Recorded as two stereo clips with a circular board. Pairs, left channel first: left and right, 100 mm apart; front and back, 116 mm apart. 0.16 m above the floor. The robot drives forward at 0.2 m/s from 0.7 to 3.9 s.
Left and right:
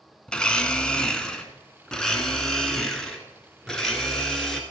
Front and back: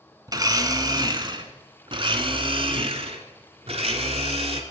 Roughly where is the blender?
Behind.